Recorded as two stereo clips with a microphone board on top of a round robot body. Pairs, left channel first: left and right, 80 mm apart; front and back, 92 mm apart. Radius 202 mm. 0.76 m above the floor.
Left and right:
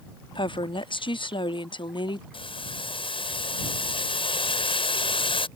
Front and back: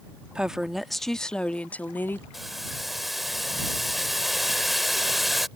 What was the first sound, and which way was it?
A woman speaking, 100° left.